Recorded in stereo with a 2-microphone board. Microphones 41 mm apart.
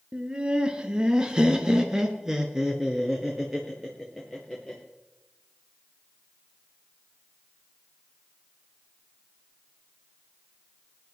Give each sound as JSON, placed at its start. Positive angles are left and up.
{"t": 0.1, "sound": "laughter", "side_deg": -20, "distance_m": 1.4}